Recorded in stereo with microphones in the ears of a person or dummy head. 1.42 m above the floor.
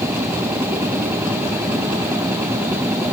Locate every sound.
0.0 s a machine running: 15° right (ahead or behind)